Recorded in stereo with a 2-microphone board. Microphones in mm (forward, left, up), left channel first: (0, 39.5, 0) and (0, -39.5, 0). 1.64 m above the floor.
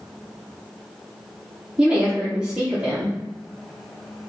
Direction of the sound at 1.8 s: 10° right (ahead or behind).